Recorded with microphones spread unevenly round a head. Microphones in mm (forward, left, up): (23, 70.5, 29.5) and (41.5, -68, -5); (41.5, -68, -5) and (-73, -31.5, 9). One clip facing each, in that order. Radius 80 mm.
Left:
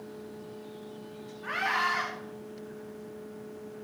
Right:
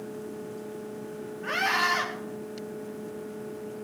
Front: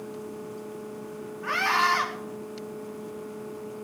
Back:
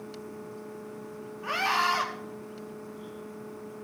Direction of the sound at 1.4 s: 130° right.